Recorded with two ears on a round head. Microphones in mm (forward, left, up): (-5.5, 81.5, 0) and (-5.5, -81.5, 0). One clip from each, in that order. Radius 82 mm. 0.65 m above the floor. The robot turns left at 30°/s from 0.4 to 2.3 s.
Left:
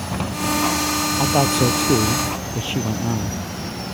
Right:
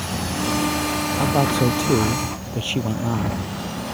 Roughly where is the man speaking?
Ahead.